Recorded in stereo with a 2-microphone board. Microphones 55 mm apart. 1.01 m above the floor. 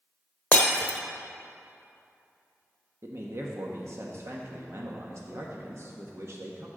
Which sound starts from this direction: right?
A man speaking, at 3.0 s.